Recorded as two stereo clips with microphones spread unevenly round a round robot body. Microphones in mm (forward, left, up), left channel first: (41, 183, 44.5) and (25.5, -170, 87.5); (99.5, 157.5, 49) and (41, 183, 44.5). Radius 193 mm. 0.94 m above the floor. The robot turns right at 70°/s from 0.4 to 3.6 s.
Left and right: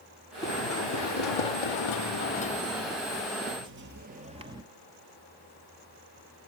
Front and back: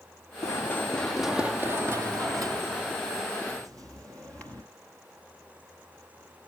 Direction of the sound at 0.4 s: 10° left.